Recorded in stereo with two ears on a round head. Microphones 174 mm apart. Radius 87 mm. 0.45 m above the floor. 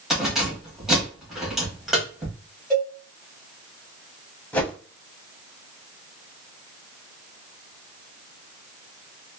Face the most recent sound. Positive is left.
turn(degrees=5)  # may be behind; listen again after turning